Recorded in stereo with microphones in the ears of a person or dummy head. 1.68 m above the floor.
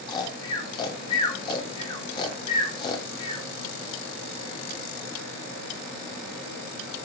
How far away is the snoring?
About 0.6 m.